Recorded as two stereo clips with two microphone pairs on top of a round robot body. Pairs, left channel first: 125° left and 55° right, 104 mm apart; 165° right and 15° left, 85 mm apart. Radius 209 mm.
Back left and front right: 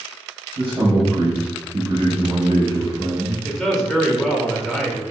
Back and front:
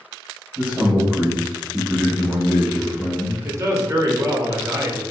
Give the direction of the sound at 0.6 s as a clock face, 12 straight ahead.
2 o'clock.